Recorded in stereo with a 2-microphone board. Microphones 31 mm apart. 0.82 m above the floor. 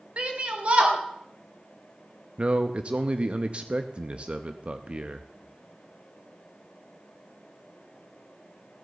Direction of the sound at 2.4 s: 40° right (ahead or behind).